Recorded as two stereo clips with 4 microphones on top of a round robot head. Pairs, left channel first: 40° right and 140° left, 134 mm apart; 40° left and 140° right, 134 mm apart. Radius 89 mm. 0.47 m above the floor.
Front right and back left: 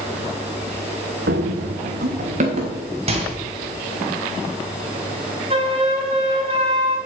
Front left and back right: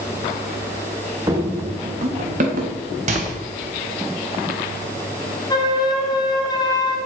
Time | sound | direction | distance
1.3 | running footsteps | 150° left | 1.7 m
3.1 | a microwave | 175° right | 2.5 m
5.5 | a flute | 100° left | 2.5 m